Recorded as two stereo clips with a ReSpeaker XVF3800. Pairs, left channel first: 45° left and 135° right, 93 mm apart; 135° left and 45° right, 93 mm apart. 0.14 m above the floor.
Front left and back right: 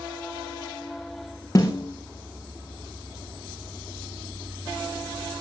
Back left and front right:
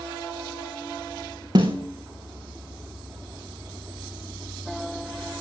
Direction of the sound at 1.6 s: 10° right.